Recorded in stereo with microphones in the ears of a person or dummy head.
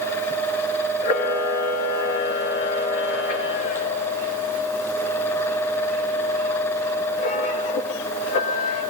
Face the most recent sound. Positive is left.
turn(degrees=50)  # may be behind; listen again after turning